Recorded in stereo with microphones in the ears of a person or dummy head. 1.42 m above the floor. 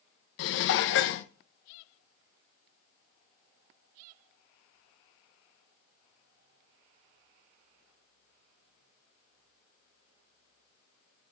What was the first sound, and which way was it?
Dishes clattering, 65° left (ahead or behind).